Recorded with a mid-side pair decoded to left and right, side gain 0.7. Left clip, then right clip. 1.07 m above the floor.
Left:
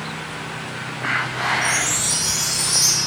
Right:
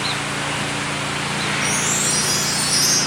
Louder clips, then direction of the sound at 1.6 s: Even; 10° left.